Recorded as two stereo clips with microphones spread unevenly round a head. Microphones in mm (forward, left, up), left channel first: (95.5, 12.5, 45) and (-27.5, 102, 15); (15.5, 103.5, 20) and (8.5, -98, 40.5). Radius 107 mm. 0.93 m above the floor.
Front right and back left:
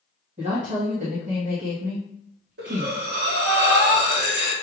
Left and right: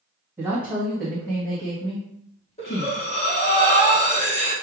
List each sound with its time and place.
0.4 s a woman speaking: 175° right, 1.3 m; by 3.0 s 120° left, 1.2 m
2.6 s breathing: 150° left, 1.2 m